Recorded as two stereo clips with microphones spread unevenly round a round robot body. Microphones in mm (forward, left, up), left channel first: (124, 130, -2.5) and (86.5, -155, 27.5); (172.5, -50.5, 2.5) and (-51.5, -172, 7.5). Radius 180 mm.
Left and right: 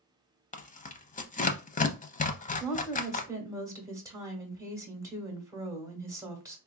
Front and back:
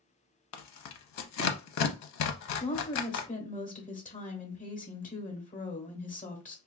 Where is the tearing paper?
15° left, 0.6 m.